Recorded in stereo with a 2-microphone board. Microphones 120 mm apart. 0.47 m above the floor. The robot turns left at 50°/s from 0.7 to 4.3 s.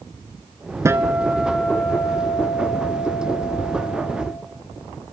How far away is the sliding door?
I don't hear a sliding door.